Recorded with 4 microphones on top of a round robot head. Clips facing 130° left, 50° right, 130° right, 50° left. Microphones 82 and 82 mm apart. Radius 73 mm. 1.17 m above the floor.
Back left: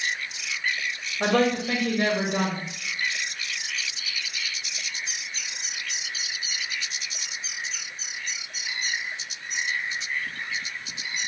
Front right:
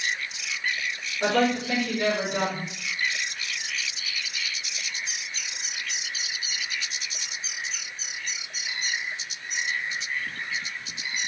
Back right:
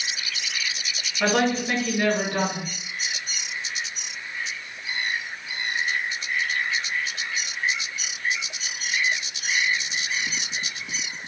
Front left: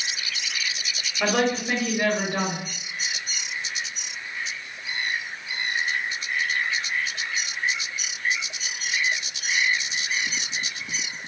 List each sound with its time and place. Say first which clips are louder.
1.2 s a woman speaking: back left 1 dB, back right 1 dB; 130° left, 1.9 m